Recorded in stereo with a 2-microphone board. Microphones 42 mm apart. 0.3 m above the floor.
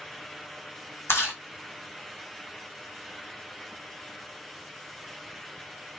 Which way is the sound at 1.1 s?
80° left.